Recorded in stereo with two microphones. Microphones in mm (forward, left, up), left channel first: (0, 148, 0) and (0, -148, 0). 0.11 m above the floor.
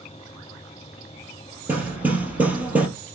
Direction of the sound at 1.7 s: 5° right (ahead or behind).